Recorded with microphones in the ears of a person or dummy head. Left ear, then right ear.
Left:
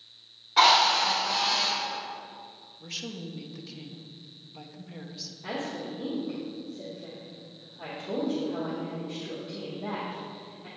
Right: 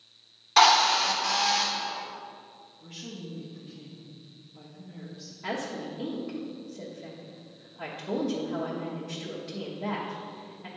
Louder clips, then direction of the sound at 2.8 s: Left 6 dB; 65° left (ahead or behind).